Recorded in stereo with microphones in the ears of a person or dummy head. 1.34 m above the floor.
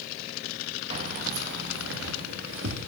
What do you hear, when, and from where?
0.9 s keys jangling: 35° right (ahead or behind), 1.0 m; by 2.9 s 75° right (ahead or behind), 2 m